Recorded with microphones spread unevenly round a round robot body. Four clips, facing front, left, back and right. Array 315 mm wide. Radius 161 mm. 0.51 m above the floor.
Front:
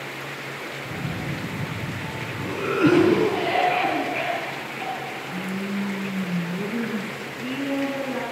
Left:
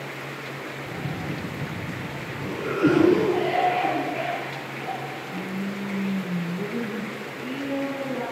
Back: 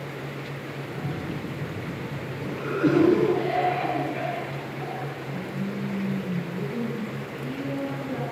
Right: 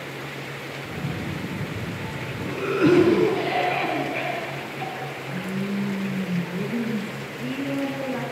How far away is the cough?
About 4.5 m.